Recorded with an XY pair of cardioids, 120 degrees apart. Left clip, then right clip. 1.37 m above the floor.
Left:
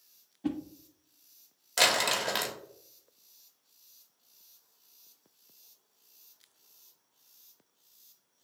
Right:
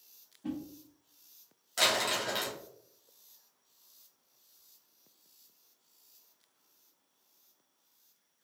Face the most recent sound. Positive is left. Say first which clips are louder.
# left 3 dB
turn(degrees=40)